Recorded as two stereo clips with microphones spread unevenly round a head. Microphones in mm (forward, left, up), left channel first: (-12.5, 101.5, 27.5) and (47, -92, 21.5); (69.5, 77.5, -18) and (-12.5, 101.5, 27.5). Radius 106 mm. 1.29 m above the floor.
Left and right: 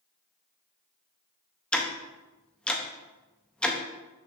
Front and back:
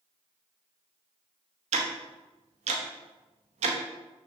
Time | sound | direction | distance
1.7 | ticking | 170° right | 0.7 m